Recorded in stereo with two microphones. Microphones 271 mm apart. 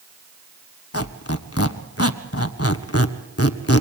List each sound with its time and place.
0.9 s a squeak: 60° left (ahead or behind), 1.0 m